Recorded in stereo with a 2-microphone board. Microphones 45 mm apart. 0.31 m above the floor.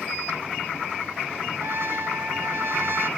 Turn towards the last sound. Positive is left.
turn(degrees=-60)  # may be behind; listen again after turning